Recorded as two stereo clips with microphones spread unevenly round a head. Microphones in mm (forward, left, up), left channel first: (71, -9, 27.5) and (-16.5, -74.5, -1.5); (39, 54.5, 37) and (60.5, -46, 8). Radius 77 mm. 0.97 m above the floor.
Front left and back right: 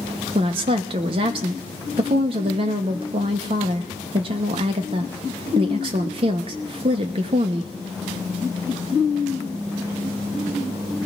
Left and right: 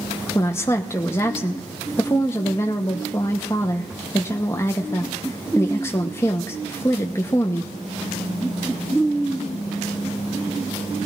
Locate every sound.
0.3 s a woman speaking: 175° left, 0.8 m